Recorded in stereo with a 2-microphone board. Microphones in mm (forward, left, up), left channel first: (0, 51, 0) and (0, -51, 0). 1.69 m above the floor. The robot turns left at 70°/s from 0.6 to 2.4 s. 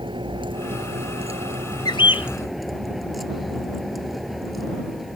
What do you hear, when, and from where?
0.0 s a vehicle: 55° right; by 5.2 s straight behind
1.9 s a bird: 130° left; by 2.3 s 95° left